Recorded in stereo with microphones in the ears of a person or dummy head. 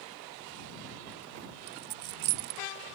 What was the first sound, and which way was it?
A dropped coin, 55° right (ahead or behind).